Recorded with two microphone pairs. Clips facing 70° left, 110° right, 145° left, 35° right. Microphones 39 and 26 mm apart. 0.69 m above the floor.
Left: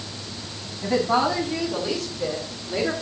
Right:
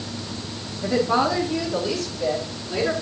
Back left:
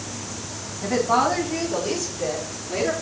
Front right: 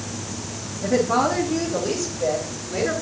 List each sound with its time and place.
0.8 s a woman speaking: 120° left, 7 m; by 2.9 s 140° left, 7.5 m